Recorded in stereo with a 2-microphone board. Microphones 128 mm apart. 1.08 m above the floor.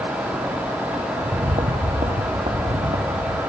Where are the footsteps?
45° right (ahead or behind), 2.0 m; by 3.4 s 70° right (ahead or behind), 3 m.